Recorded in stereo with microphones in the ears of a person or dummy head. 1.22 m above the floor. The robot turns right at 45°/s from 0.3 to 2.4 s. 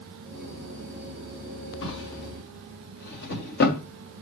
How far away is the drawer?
About 2 m.